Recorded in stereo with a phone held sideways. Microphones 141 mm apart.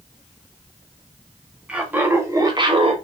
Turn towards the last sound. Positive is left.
turn(degrees=-45)  # may be behind; listen again after turning